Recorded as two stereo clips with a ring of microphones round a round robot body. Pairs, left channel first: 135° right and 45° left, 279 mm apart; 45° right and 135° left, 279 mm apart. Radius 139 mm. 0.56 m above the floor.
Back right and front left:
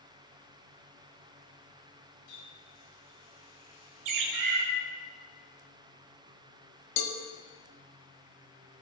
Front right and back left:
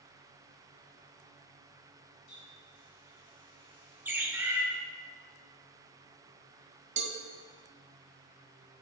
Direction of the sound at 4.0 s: 50° left.